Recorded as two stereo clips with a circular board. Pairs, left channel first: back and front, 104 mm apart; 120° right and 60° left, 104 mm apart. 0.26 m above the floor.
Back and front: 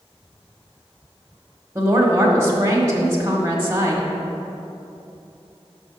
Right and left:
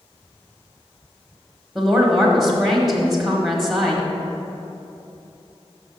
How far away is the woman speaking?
About 1.1 m.